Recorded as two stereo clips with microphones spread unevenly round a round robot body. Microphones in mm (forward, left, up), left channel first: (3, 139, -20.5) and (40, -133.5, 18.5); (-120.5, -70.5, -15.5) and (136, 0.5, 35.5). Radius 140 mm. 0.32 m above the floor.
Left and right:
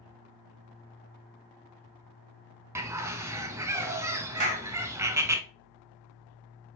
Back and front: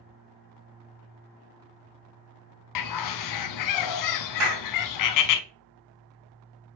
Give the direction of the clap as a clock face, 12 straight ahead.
1 o'clock.